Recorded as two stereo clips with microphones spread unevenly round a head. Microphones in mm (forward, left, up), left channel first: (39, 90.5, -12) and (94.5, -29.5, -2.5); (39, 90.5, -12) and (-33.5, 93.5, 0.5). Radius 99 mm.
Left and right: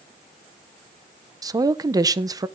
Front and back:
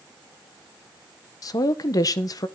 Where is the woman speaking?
25° right, 0.9 m.